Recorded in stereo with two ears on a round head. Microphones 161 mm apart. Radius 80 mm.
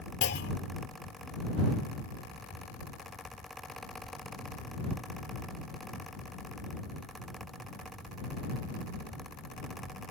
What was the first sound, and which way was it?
A clunk, 65° left (ahead or behind).